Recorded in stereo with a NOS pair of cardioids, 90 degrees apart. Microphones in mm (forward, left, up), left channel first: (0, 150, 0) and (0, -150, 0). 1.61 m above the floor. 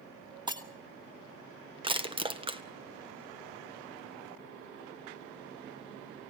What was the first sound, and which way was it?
Breaking glass, 15° right.